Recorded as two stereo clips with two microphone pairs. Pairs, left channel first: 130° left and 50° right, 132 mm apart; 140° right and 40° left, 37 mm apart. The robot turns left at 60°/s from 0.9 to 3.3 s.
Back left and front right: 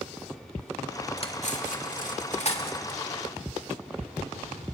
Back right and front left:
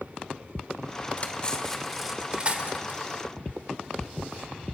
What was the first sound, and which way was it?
Cutlery clinking, 175° left.